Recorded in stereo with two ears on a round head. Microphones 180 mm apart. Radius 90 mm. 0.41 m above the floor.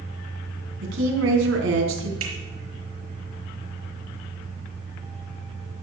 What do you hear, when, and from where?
0.8 s a woman speaking: 70° right (ahead or behind), 3.5 m
2.2 s a finger snap: 85° right, 5.5 m